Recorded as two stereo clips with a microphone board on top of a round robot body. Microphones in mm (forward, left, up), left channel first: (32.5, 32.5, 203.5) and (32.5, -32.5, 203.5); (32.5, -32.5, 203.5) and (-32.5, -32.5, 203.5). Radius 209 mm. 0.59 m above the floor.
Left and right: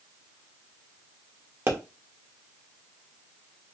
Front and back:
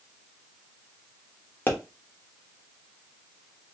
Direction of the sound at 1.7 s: 50° right.